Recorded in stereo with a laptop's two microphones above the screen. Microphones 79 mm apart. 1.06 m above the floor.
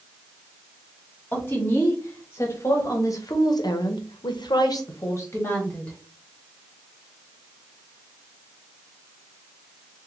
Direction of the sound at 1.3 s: 25° left (ahead or behind).